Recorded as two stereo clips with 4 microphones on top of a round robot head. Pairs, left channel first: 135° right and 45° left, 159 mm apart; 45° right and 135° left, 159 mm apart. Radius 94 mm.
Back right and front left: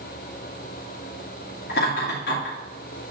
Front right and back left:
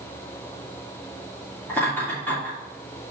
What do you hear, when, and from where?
1.7 s laughter: 120° right, 2 m